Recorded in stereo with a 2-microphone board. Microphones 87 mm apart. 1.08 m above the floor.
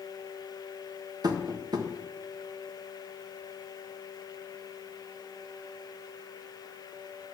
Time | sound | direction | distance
1.2 | tapping | 50° right (ahead or behind) | 1.3 m